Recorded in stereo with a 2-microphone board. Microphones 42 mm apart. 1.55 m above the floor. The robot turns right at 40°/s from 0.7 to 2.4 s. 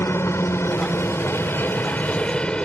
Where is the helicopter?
85° left; by 2.6 s 155° left.